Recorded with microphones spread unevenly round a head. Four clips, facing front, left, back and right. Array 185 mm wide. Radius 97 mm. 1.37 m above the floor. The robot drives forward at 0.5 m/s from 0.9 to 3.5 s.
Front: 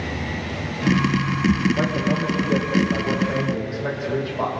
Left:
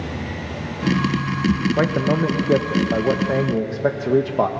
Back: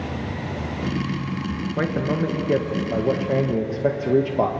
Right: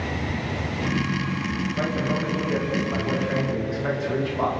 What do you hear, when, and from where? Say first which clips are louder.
1.8 s a man speaking: left 6 dB, front 1 dB; 100° left, 1.4 m; by 4.5 s 130° left, 1.7 m